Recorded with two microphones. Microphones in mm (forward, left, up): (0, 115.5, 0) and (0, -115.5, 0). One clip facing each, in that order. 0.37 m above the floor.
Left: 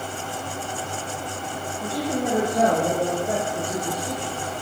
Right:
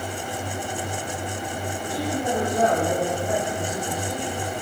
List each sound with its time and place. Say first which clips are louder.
1.8 s a woman speaking: left 2 dB; 30° left (ahead or behind), 9 m; by 4.3 s 35° left (ahead or behind), 10.5 m